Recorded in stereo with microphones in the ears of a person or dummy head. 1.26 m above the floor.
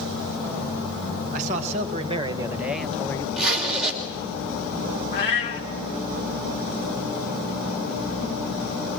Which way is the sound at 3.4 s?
Centre (ahead or behind).